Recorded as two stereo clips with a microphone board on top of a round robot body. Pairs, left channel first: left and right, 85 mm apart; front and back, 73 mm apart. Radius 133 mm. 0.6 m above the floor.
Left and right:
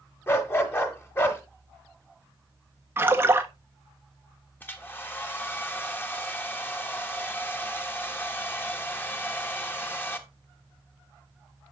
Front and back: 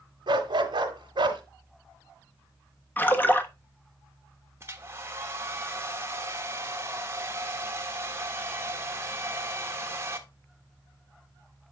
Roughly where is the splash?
Ahead right.